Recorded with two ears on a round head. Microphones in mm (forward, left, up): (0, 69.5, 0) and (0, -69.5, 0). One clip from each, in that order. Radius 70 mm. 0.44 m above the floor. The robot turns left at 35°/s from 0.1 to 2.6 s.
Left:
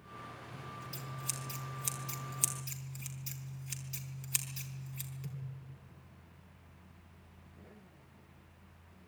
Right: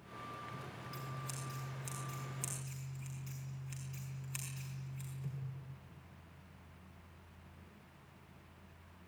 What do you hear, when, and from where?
0.5 s scissors: 30° left (ahead or behind), 4.5 m; by 5.3 s 75° left (ahead or behind), 4.5 m